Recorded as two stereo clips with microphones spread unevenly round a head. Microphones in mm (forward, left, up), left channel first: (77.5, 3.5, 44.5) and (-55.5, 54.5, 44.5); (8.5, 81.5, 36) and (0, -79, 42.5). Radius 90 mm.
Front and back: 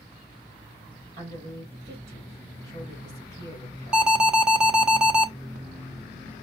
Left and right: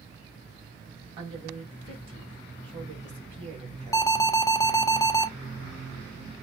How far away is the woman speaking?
About 3.5 m.